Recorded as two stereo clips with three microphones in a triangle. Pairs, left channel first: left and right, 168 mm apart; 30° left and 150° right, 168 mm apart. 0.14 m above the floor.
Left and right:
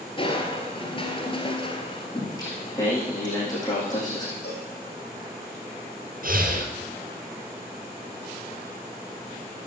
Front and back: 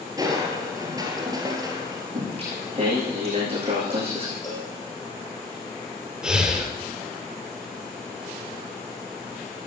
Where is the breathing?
65° right, 2 m.